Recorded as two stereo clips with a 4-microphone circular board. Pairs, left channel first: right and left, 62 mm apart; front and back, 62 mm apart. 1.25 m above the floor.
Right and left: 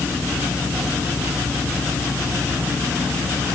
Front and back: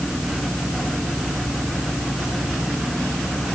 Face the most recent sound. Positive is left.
No sound to turn to.